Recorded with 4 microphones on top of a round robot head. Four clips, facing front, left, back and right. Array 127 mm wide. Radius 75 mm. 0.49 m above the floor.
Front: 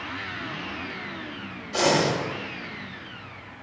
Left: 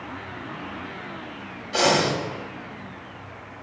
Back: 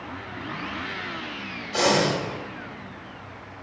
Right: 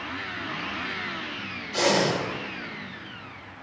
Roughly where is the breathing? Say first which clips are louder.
Left 2 dB, even; left.